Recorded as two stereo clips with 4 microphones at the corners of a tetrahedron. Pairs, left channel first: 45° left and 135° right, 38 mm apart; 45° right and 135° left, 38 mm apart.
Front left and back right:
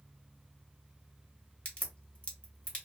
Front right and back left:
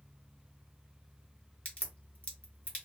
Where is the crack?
Straight ahead, 1.1 m.